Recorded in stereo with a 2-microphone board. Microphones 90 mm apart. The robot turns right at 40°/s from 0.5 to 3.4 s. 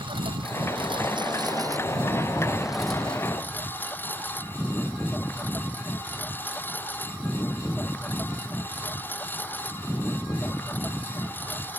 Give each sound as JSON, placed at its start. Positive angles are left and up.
{"t": 0.0, "sound": "a lawn mower", "azimuth_deg": -95}